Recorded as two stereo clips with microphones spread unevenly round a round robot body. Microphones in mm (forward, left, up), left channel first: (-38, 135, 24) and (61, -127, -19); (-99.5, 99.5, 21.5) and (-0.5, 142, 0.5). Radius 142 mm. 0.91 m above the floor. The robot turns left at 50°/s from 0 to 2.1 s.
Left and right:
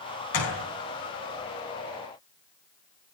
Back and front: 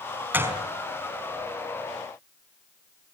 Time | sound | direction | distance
0.3 | a gunshot | 95° left | 5 m